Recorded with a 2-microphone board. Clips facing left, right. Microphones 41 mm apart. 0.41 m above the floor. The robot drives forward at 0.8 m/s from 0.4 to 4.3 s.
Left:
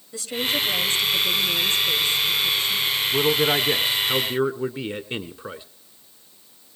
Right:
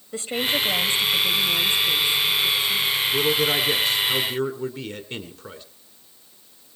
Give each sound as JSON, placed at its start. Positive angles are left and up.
{"t": 0.1, "sound": "a woman speaking", "side_deg": -35, "distance_m": 1.7}
{"t": 3.1, "sound": "a man speaking", "side_deg": 20, "distance_m": 1.2}